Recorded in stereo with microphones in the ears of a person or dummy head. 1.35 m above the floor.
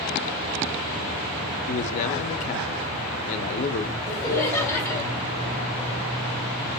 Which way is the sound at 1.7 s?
40° left (ahead or behind).